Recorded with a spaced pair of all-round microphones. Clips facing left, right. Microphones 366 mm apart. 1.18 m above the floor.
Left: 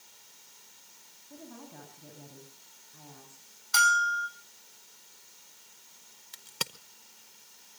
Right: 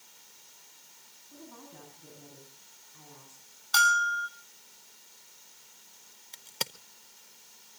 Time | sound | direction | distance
1.3 | a woman speaking | 80° left | 9 m
3.7 | a bell | 5° left (ahead or behind) | 5.5 m
6.3 | a crack | 20° left (ahead or behind) | 0.8 m